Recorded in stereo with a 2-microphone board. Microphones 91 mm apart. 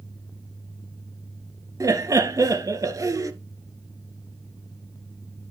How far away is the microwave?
No microwave in this recording.